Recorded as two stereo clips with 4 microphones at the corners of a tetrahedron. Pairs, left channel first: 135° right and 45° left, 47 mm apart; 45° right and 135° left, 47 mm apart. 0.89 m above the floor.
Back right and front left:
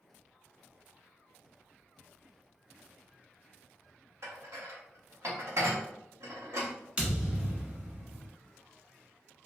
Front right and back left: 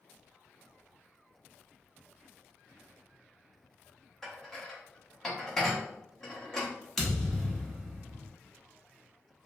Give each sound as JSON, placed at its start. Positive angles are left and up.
{"t": 4.2, "sound": "dishes clattering", "azimuth_deg": 35, "distance_m": 0.8}
{"t": 7.0, "sound": "a thud", "azimuth_deg": 35, "distance_m": 0.8}